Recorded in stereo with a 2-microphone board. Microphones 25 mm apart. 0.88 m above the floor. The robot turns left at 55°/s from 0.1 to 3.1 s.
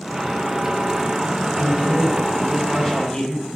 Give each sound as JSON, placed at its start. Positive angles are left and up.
{"t": 1.6, "sound": "a man speaking", "azimuth_deg": -125, "distance_m": 7.0}